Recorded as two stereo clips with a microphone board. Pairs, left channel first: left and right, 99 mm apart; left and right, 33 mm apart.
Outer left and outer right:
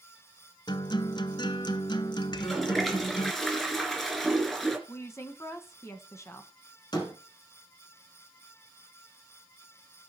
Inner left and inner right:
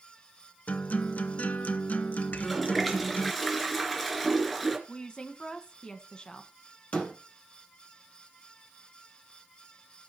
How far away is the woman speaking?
About 1.5 m.